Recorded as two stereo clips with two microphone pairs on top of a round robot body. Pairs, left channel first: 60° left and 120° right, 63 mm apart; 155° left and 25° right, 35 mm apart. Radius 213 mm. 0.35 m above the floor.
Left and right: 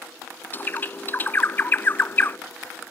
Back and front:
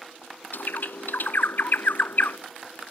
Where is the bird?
120° left.